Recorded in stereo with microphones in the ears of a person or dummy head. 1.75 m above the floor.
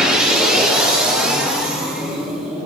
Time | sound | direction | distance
0.0 | a machine running | centre (ahead or behind) | 1.3 m